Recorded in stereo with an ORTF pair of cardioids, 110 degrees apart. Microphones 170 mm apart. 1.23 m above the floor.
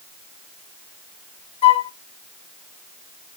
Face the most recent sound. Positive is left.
turn(degrees=35)